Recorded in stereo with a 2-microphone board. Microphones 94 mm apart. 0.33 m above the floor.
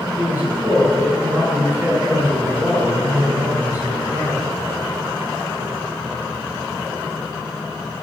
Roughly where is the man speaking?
Centre.